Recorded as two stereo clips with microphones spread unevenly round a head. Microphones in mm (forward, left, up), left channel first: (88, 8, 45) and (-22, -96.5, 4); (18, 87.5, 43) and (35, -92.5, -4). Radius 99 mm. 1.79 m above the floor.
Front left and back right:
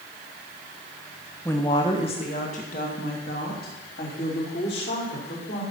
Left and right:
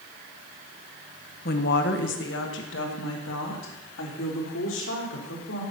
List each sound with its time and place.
1.4 s a woman speaking: 110° left, 1.1 m; by 5.6 s 80° left, 4.5 m